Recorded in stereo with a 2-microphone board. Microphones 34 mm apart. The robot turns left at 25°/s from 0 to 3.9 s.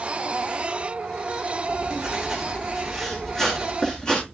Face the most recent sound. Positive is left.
turn(degrees=150)